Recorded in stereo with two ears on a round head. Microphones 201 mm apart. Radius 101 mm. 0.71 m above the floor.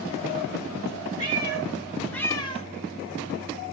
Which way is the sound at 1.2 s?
20° right (ahead or behind).